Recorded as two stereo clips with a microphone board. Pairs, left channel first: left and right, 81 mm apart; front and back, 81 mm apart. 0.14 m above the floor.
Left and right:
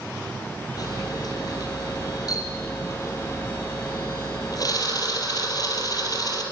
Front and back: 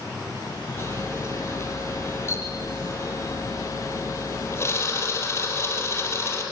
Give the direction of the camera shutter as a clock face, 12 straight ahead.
10 o'clock.